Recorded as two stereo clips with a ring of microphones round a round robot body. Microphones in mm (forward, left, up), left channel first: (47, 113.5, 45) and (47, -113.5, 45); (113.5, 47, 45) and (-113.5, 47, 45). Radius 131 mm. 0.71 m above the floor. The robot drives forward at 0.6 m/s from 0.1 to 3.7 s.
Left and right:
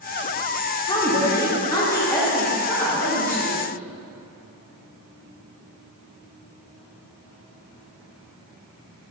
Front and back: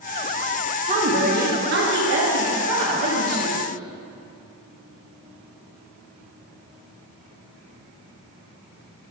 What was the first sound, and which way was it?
A woman speaking, 145° left.